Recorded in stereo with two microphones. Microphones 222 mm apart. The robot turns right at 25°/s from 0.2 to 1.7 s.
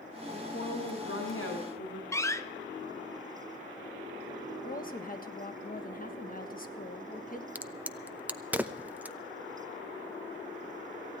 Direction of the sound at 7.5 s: 5° right (ahead or behind).